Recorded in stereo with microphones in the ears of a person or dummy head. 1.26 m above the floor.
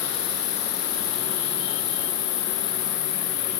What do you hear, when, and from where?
0.0 s an insect: 35° left (ahead or behind), 1.9 m